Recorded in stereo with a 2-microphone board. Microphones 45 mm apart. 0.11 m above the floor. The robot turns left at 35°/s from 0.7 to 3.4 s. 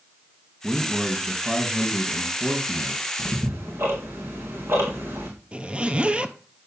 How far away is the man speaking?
About 3.5 m.